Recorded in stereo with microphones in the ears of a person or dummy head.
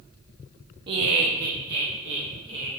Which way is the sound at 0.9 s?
35° right (ahead or behind).